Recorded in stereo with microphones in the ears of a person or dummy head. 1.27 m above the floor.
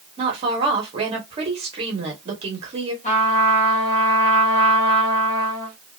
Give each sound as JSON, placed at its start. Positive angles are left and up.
{"t": 0.2, "sound": "a woman speaking", "side_deg": -35, "distance_m": 1.2}
{"t": 3.0, "sound": "a trumpet", "side_deg": 30, "distance_m": 1.1}